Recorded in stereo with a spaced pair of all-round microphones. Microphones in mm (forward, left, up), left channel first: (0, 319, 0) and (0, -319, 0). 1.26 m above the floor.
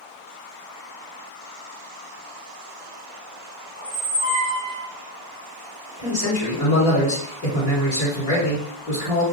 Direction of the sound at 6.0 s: 75° left (ahead or behind).